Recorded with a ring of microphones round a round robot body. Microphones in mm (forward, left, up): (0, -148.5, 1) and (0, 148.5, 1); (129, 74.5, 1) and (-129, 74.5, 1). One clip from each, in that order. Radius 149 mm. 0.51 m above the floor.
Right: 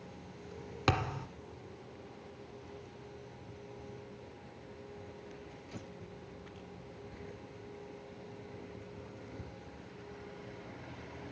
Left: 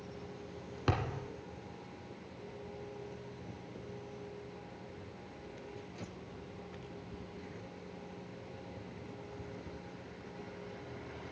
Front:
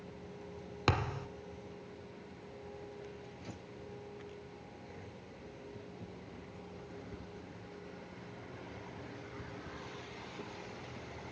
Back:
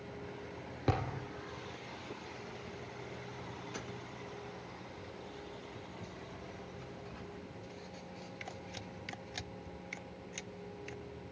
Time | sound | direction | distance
0.9 | a thud | 30° right | 1.5 m